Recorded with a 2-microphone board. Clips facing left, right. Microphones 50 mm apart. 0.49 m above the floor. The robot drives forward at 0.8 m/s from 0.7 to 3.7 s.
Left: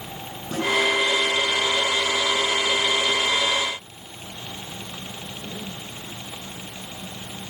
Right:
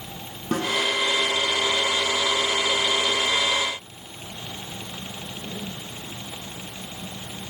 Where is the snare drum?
50° right (ahead or behind), 8 m.